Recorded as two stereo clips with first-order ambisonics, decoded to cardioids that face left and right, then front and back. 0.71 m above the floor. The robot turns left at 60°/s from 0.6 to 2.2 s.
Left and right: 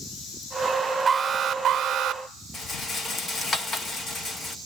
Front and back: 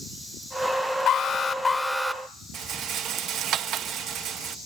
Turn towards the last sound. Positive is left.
turn(degrees=155)